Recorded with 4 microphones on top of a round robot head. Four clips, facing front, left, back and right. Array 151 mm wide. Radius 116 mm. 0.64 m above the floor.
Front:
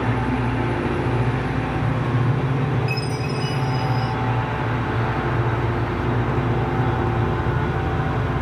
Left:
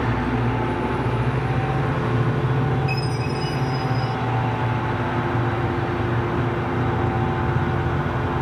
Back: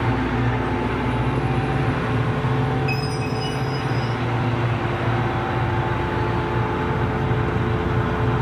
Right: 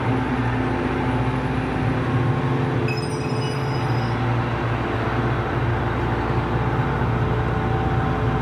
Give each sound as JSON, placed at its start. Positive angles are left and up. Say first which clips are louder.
{"t": 2.9, "sound": "a chime", "louder": "right 1 dB, back 1 dB", "azimuth_deg": -45, "distance_m": 7.5}